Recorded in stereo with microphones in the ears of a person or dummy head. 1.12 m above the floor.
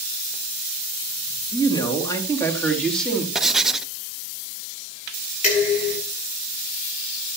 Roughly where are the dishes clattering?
Left.